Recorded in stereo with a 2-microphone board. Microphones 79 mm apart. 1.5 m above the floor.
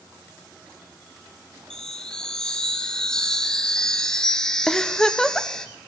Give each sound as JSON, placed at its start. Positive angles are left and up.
{"t": 1.7, "sound": "a chime", "side_deg": 10, "distance_m": 1.4}
{"t": 4.7, "sound": "a giggle", "side_deg": 10, "distance_m": 0.9}